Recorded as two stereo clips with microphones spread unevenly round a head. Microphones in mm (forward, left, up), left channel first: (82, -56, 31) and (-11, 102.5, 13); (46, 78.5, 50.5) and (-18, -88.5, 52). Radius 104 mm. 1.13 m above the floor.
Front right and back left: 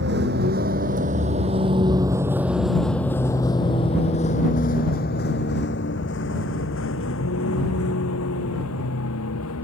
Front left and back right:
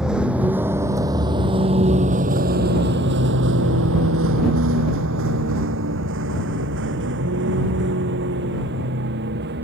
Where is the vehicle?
165° left; by 9.6 s 80° right.